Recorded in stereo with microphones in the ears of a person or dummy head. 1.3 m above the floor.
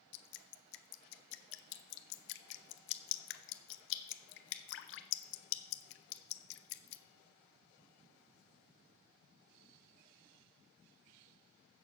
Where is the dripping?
65° left (ahead or behind), 0.8 m.